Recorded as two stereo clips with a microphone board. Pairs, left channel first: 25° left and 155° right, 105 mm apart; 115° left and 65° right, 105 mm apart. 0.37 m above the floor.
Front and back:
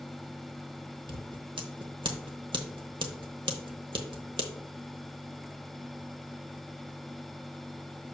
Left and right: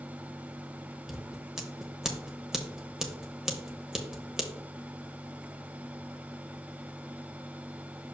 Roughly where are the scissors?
Behind right.